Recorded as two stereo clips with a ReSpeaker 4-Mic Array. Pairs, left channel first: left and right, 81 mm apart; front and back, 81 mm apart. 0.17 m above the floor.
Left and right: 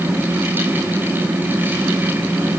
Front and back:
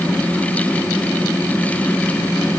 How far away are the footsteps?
No footsteps in this recording.